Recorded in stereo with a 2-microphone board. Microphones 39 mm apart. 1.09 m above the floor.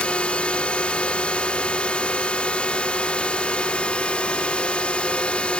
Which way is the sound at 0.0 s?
30° left (ahead or behind).